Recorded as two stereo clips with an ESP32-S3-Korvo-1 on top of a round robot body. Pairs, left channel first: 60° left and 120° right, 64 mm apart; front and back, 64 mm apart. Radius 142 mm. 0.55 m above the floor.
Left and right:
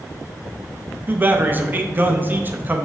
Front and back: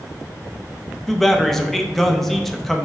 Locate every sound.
1.1 s a man speaking: 85° right, 0.8 m